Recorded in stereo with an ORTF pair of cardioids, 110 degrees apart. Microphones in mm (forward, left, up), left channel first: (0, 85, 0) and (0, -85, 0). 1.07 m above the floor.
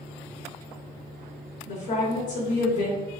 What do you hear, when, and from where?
1.7 s a woman speaking: 50° left, 1.4 m